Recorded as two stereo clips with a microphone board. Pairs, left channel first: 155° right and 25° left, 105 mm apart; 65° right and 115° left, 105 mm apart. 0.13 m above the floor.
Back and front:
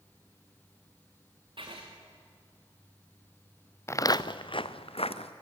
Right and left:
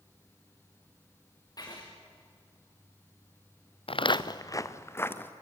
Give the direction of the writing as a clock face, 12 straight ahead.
12 o'clock.